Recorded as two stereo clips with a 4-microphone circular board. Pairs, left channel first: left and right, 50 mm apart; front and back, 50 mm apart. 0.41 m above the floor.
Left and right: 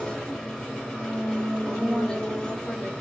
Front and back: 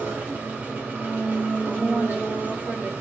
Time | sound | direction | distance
0.0 | an engine running | 155° left | 0.9 m
1.7 | a woman speaking | 155° left | 1.0 m